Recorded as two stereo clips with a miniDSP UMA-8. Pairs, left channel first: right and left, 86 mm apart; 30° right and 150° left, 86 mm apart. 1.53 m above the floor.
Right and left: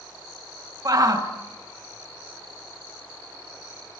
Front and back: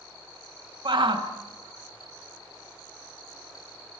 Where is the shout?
130° left, 2 m.